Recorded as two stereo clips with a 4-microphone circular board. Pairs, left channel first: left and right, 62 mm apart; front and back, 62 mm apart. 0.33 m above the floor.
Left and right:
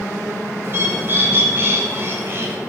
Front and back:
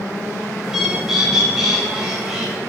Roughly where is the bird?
Right.